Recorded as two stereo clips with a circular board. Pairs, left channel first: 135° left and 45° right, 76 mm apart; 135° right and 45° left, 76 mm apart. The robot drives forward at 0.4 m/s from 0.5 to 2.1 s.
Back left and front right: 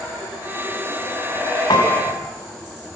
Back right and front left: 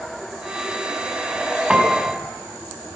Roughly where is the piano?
Behind left.